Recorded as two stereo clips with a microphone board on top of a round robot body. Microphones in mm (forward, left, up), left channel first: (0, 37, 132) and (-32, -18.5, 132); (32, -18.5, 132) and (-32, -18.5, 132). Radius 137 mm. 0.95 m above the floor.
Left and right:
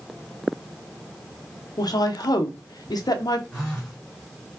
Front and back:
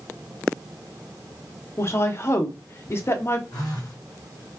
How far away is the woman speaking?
About 0.6 m.